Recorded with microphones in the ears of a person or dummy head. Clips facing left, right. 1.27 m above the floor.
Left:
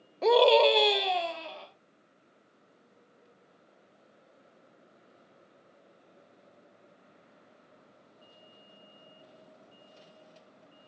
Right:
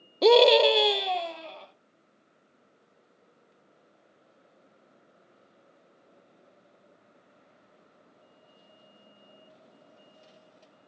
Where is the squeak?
No squeak in this recording.